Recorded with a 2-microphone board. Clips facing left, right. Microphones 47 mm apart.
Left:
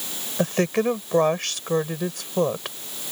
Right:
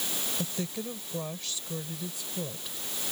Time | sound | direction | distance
0.4 | a woman speaking | 75° left (ahead or behind) | ?